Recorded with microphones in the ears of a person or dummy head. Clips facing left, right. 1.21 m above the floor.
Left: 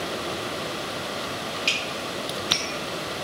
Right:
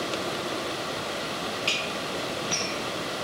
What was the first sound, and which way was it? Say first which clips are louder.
Dishes clattering: even; 20° left (ahead or behind).